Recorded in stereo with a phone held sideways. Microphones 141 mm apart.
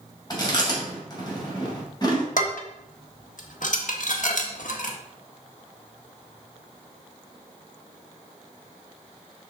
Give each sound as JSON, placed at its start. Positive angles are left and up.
{"t": 0.3, "sound": "chewing", "side_deg": 30, "distance_m": 2.5}
{"t": 2.4, "sound": "dishes clattering", "side_deg": 65, "distance_m": 1.2}